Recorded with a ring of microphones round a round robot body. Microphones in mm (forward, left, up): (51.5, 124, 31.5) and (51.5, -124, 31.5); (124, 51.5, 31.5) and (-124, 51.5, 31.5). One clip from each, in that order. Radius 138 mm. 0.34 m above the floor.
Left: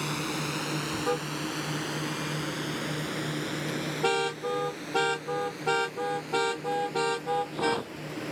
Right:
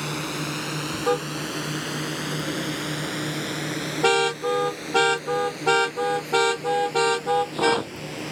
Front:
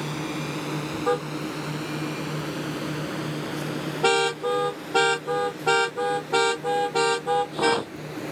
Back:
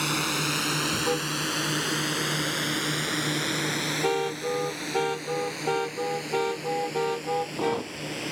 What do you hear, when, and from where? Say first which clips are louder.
0.0 s a drone: right 3 dB, back 4 dB; straight behind; by 8.3 s 165° right
1.1 s a car horn: right 8 dB, front 1 dB; 35° right